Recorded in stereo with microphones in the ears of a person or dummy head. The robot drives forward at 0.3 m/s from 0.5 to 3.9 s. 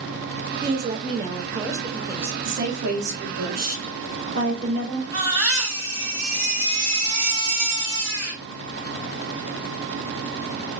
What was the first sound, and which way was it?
A woman speaking, 25° right (ahead or behind).